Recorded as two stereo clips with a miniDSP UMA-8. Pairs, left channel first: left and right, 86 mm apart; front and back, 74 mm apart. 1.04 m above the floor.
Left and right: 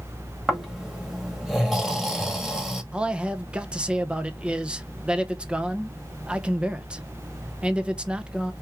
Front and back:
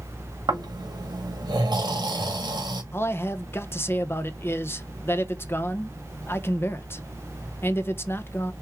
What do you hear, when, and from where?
0.5 s snoring: 175° right, 2 m
2.9 s a man speaking: 25° right, 0.8 m